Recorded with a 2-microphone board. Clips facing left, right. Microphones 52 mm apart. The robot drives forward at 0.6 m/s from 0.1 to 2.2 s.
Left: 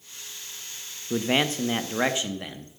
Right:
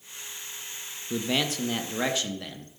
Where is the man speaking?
40° left (ahead or behind), 0.7 m; by 2.7 s 25° left (ahead or behind), 1.1 m.